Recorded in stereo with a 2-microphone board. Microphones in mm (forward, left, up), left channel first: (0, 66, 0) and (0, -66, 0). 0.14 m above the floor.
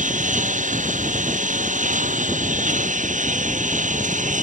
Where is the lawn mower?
70° right (ahead or behind).